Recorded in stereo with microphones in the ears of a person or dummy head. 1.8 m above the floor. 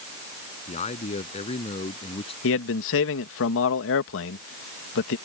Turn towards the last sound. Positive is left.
turn(degrees=65)  # may be behind; listen again after turning